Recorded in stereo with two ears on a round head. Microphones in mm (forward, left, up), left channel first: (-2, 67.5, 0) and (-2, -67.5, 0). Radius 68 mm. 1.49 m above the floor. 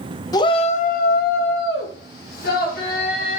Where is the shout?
25° left (ahead or behind), 0.9 m; by 3.4 s 60° left (ahead or behind), 3 m.